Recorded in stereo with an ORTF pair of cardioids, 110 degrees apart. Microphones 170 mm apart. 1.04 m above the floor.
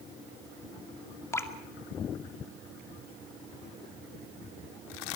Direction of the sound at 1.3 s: 15° left.